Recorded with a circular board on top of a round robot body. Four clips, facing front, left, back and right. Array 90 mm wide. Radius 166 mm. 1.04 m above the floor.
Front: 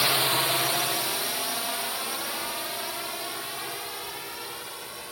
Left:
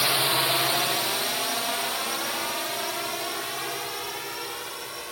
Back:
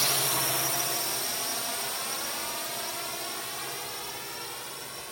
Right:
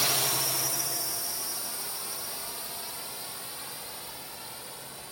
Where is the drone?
40° left; by 5.1 s 80° left.